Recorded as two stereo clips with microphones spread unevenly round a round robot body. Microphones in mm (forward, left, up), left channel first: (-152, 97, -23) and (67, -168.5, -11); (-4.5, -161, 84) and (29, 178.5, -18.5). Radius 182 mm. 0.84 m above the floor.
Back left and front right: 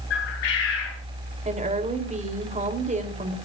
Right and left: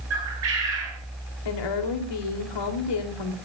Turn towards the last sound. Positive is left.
turn(degrees=-120)